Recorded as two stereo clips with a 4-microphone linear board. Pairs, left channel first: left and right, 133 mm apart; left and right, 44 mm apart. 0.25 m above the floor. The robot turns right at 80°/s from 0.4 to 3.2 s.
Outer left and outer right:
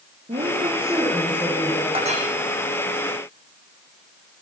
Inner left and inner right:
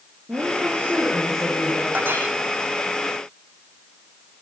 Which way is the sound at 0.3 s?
75° right.